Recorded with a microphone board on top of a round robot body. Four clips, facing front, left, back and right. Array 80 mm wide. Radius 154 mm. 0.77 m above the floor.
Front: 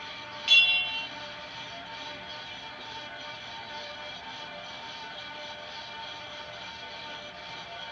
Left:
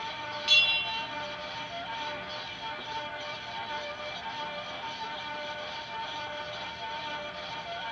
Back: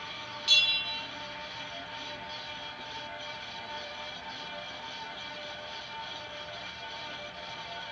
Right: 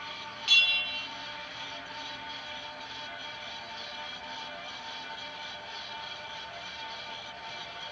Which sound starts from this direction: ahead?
A bell, at 0.5 s.